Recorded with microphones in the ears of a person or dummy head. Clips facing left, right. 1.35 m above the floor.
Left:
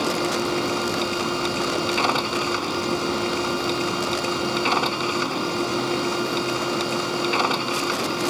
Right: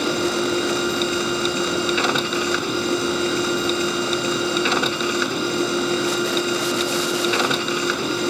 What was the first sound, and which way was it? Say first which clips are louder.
A machine running: right 2 dB; 15° right (ahead or behind).